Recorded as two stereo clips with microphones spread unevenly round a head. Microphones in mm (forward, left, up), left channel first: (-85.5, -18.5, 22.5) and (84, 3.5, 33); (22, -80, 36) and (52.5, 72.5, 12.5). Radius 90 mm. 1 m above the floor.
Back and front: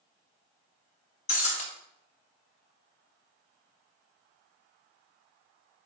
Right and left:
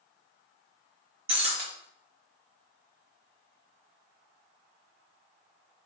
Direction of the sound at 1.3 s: 140° left.